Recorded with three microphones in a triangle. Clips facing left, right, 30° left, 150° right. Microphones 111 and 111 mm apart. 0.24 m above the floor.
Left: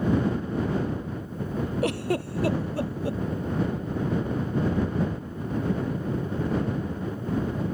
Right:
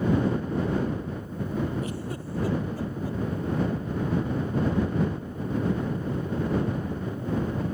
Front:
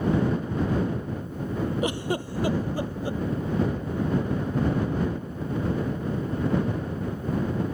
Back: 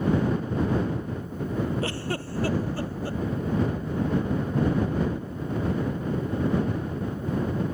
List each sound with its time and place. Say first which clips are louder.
1.8 s a giggle: left 7 dB, front 3 dB; 105° left